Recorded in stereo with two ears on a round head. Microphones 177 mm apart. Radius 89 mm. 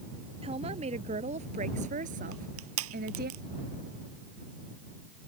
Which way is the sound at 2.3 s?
85° right.